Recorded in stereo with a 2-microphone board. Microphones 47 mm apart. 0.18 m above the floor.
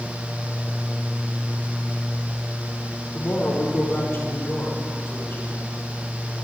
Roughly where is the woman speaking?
Left.